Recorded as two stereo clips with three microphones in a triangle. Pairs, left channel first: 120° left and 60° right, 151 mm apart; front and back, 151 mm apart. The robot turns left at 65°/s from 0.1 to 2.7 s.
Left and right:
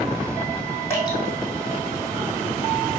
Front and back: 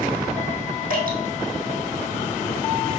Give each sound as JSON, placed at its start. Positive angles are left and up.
{"t": 0.9, "sound": "dripping", "azimuth_deg": -165, "distance_m": 2.5}